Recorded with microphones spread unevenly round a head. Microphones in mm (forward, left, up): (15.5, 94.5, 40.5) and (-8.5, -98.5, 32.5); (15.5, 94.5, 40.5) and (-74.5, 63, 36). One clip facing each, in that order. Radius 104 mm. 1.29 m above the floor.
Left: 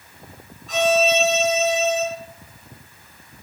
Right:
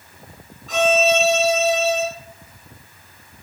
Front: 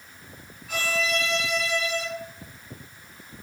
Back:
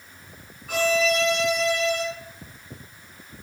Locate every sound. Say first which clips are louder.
0.7 s a violin: right 1 dB, back 6 dB; 110° right, 3 m